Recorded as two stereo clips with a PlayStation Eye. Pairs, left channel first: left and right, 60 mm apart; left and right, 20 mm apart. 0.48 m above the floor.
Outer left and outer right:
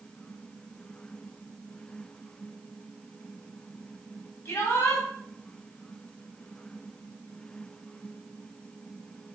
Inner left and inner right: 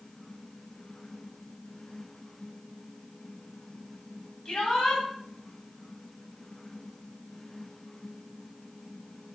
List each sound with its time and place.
4.5 s a shout: 35° left (ahead or behind), 3.5 m